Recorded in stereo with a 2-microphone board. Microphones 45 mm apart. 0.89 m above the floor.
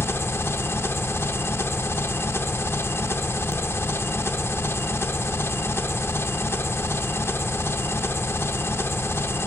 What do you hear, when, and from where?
0.0 s an engine running: 60° left (ahead or behind), 0.7 m